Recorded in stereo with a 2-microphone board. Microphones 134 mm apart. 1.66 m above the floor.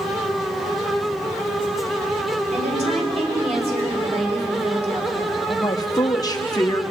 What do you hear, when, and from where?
2.5 s a woman speaking: 55° right (ahead or behind), 5 m
5.5 s a woman speaking: 30° left (ahead or behind), 1.2 m